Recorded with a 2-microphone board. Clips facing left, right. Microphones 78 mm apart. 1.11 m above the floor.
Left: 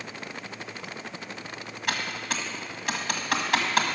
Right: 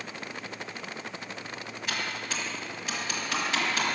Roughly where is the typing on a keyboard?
Left.